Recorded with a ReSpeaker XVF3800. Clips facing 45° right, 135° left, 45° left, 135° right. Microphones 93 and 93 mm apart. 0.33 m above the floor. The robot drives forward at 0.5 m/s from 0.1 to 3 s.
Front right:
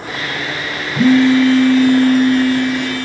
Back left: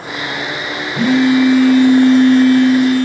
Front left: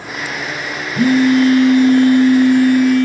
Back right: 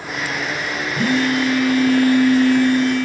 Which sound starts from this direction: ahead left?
A phone buzzing, at 0.9 s.